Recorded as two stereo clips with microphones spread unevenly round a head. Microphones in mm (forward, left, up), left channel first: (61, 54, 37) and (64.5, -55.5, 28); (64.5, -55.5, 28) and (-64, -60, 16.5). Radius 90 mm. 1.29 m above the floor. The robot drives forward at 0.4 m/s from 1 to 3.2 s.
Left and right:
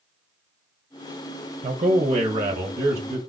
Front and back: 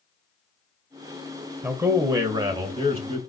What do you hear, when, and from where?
1.6 s a man speaking: 110° right, 0.7 m; by 3.2 s 145° right, 1.0 m